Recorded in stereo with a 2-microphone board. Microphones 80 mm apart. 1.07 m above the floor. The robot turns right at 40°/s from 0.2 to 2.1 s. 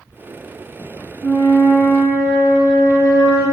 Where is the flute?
175° right, 1.7 m; by 3.4 s 140° right, 1.7 m.